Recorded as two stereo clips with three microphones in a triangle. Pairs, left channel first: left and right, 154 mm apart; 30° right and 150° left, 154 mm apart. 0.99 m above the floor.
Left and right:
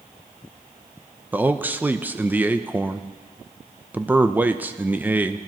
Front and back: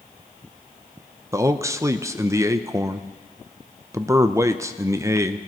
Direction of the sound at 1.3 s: 155° right.